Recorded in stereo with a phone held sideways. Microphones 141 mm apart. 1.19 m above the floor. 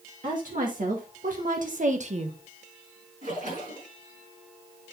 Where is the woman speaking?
70° right (ahead or behind), 2.5 m; by 2.4 s 45° right (ahead or behind), 1.3 m.